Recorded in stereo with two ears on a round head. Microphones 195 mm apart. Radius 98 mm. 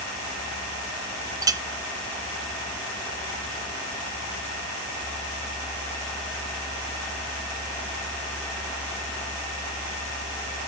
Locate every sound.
1.4 s a clink: 15° right (ahead or behind), 0.5 m